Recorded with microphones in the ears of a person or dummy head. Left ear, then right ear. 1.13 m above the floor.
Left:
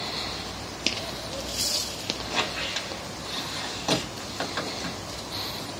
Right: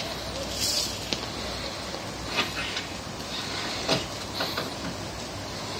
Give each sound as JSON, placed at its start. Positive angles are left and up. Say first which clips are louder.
{"t": 2.2, "sound": "a squeak", "louder": "right 1 dB", "side_deg": 70, "distance_m": 2.0}